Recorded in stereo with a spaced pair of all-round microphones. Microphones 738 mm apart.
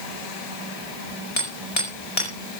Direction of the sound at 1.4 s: 50° left (ahead or behind).